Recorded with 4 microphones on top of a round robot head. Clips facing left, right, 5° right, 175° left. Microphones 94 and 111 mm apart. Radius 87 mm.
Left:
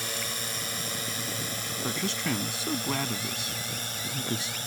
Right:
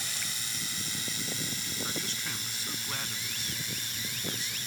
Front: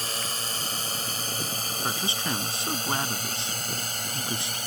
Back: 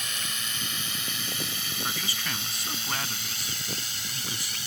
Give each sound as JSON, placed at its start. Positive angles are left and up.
{"t": 0.0, "sound": "a drone", "azimuth_deg": 45}
{"t": 1.8, "sound": "a man speaking", "azimuth_deg": 60}